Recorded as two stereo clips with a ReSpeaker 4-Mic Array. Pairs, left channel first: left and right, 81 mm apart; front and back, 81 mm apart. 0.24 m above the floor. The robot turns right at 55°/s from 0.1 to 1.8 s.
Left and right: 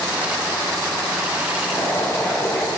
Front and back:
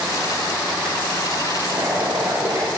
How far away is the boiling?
About 4 m.